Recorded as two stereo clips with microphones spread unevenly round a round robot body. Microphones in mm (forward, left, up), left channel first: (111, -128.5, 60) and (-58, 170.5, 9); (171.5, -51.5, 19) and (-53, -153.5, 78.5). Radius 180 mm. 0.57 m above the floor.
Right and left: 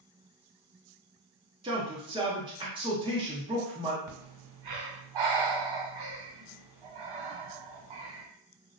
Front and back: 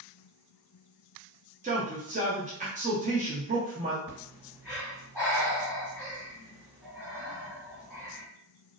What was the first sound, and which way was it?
A man speaking, 150° left.